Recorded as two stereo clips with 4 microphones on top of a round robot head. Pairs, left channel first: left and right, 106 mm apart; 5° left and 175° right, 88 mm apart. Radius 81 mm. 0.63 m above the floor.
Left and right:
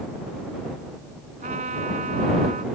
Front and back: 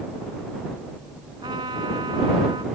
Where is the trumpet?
120° right.